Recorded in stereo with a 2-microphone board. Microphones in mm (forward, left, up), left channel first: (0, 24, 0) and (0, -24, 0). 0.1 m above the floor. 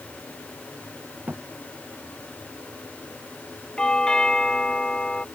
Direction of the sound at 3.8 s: 15° left (ahead or behind).